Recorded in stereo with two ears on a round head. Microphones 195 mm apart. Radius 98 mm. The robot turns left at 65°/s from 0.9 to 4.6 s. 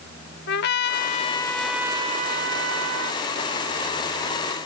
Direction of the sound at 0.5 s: 50° left.